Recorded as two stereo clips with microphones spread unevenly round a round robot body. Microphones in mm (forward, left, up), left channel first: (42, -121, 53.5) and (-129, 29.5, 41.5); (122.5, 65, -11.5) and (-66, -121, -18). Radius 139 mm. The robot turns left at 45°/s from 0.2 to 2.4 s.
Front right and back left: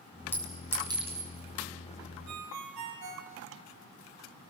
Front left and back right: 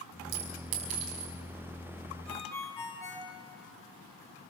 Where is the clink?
120° right, 5.5 m; by 1.3 s 165° right, 5.5 m.